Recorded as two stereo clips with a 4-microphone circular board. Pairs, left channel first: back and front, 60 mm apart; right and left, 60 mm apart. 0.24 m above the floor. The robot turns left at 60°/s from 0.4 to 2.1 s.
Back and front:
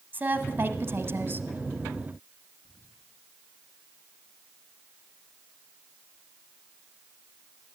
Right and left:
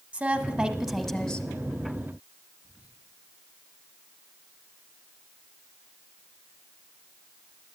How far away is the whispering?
About 3 m.